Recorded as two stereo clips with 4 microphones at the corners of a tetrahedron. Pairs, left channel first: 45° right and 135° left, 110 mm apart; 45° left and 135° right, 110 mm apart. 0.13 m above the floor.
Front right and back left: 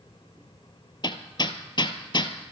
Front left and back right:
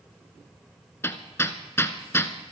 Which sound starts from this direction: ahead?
Hammering, at 1.0 s.